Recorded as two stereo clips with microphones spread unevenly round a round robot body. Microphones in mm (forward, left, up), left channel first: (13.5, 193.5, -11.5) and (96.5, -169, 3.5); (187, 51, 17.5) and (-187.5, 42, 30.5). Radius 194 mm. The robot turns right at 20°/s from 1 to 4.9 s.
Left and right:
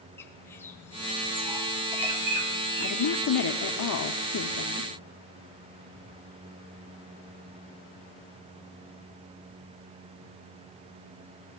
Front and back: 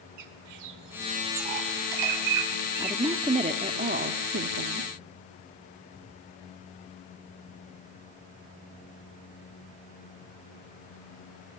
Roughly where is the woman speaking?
Left.